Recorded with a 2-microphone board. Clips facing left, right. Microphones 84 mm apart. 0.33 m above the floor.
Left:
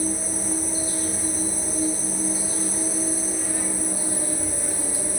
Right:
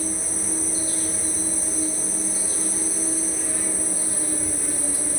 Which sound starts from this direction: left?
An insect, at 0.0 s.